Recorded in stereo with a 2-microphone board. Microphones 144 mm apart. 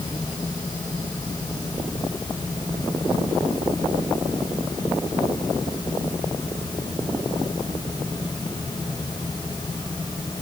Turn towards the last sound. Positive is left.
No sound to turn to.